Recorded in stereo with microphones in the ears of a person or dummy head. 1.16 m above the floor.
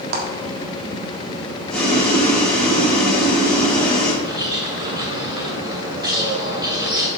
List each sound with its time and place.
0.1 s a clap: 60° right (ahead or behind), 1.6 m
1.7 s boiling: centre (ahead or behind), 3 m
4.2 s a bird: 25° right (ahead or behind), 1.7 m